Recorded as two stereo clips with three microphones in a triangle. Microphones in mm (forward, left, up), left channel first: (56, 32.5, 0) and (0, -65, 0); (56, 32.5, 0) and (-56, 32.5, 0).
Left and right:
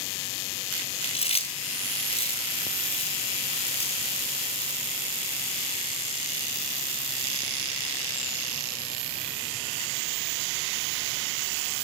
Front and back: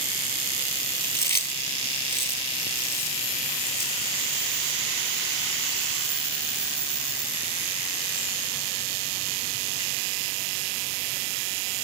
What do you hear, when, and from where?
1.0 s chewing: 65° left, 1.2 m